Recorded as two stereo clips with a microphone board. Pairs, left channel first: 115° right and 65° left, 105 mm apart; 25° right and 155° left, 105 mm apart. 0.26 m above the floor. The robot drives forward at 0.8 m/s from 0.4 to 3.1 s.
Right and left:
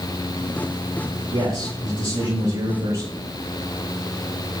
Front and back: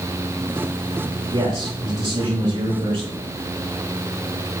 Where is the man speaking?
100° left, 5 m; by 3.3 s 115° left, 5.5 m.